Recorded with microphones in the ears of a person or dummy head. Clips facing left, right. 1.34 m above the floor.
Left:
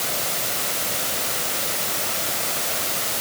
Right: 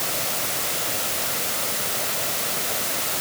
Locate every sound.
Only background noise.